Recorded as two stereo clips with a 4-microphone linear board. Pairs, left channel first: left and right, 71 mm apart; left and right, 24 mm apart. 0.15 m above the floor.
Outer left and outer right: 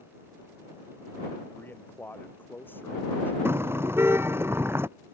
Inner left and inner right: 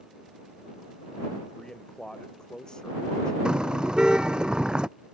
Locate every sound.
1.5 s a man speaking: 30° left (ahead or behind)
3.5 s a car horn: 35° right (ahead or behind)